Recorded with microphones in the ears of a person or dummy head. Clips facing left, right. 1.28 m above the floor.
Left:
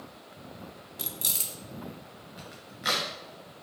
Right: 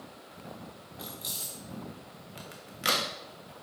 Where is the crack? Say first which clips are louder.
Right 2 dB; 35° right (ahead or behind), 1.3 m.